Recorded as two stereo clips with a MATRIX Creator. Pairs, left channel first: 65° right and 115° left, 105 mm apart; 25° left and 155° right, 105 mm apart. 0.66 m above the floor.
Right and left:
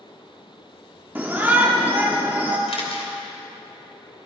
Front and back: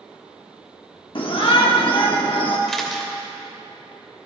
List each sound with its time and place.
1.1 s a shout: 45° left, 1.0 m
2.7 s a camera shutter: 60° right, 2.5 m